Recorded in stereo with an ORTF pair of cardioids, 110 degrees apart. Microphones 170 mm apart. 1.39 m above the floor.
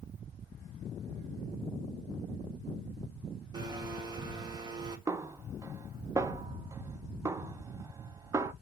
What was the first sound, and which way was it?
A blender, 25° right.